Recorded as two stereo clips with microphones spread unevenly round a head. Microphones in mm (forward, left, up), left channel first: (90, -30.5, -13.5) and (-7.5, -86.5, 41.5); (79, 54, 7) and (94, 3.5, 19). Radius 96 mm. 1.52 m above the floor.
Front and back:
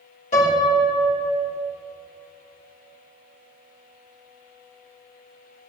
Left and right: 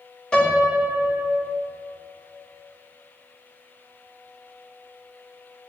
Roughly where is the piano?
Ahead left.